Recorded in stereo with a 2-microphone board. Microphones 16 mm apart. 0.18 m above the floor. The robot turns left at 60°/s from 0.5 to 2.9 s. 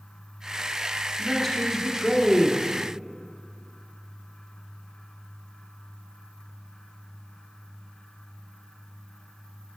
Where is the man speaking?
20° left (ahead or behind), 1.3 m; by 2.6 s 20° right (ahead or behind), 1.3 m.